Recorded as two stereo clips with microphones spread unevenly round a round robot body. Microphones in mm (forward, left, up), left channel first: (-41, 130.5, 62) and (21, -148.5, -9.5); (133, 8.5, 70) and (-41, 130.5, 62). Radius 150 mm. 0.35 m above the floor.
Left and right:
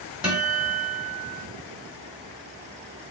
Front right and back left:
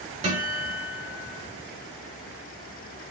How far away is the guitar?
About 2.0 m.